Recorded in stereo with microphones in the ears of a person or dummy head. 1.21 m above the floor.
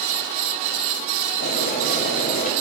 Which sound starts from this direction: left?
Boiling, at 1.4 s.